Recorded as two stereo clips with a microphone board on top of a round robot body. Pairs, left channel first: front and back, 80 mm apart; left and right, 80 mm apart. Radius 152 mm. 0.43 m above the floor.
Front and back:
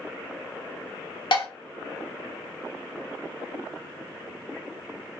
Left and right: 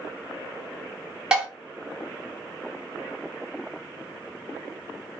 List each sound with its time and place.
1.3 s dishes clattering: 10° right, 1.5 m